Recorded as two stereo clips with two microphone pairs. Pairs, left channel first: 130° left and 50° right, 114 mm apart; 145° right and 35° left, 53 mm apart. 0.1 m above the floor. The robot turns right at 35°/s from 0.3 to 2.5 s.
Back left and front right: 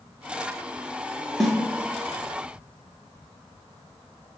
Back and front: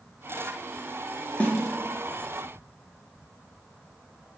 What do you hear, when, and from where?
1.4 s a snare drum: 145° right, 0.9 m; by 1.5 s 140° right, 0.9 m